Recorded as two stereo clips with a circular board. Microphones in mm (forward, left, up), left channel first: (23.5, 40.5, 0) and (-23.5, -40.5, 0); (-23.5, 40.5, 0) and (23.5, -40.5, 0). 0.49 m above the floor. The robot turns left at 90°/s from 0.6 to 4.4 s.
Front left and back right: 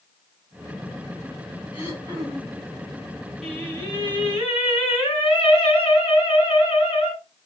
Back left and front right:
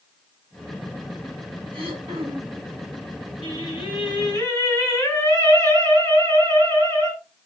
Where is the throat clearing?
40° right, 4.5 m; by 2.6 s 120° right, 4.5 m.